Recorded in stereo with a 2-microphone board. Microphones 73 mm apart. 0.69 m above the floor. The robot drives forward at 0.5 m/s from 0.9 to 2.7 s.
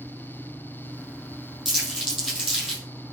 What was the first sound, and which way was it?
Crumpling, 5° right (ahead or behind).